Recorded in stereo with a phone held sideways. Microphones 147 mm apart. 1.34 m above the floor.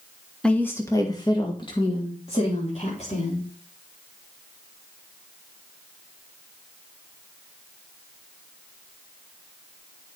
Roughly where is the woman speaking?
Centre.